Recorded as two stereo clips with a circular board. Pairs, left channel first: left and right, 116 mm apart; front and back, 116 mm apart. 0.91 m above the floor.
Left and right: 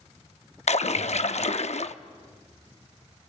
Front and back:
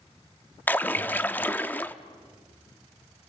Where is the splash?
75° left, 0.7 m.